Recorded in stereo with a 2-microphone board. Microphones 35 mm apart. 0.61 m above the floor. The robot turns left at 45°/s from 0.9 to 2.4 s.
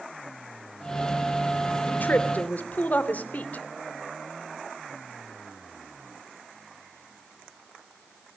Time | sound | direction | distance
1.9 | a woman speaking | 65° left (ahead or behind) | 2.5 m